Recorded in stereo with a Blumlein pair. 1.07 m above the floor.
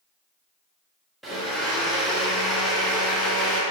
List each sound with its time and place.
1.2 s a blender: straight ahead, 0.8 m